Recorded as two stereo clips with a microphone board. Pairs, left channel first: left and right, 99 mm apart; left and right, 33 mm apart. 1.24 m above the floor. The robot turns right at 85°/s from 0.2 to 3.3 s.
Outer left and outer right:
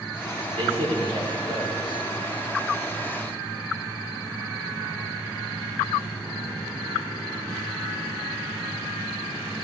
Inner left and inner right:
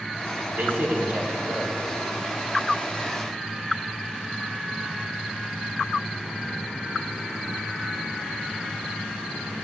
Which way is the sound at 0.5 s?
115° right.